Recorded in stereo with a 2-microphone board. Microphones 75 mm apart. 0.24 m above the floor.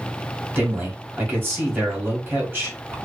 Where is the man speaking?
30° right (ahead or behind), 1.1 m.